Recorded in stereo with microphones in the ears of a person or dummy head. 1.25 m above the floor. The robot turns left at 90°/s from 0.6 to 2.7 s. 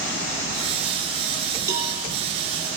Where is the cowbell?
20° right (ahead or behind), 10 m; by 2.0 s 5° left (ahead or behind), 10 m.